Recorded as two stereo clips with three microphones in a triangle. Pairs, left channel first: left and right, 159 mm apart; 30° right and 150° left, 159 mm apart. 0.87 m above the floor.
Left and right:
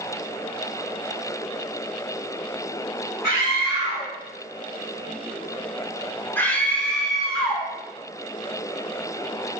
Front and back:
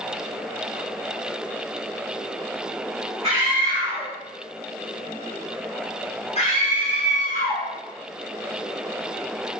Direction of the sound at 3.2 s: 100° left.